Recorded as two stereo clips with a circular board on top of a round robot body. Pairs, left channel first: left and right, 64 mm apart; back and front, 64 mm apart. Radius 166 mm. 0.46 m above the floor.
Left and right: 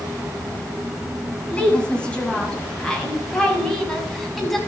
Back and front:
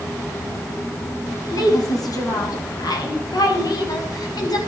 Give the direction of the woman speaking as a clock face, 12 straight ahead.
7 o'clock.